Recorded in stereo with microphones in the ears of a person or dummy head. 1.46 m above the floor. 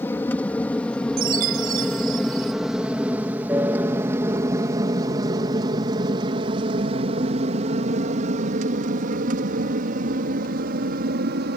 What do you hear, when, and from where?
0.0 s an aircraft: 10° left (ahead or behind); by 11.6 s 60° right (ahead or behind)
1.2 s a chime: 50° right (ahead or behind)